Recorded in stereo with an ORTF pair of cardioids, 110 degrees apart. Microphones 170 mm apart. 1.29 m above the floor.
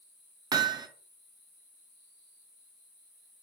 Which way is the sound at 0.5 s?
25° right.